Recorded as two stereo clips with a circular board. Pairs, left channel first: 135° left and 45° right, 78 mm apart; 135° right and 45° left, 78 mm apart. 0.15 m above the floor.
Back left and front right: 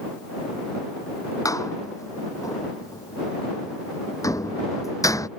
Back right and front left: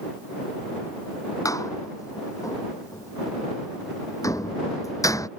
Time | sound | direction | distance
1.4 | a door slam | straight behind | ?